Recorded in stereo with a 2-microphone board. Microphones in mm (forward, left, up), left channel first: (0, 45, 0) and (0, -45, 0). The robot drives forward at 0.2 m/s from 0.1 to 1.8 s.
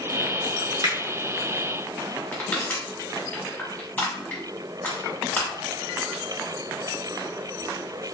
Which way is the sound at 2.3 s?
15° left (ahead or behind).